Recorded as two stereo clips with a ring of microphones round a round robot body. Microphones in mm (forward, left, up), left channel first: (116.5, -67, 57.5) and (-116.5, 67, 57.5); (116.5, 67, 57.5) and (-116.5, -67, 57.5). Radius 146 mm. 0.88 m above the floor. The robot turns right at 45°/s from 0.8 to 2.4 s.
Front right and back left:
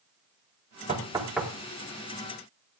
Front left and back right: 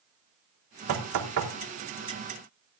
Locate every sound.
0.9 s knocking: 145° right, 3.5 m; by 1.5 s 115° right, 3.5 m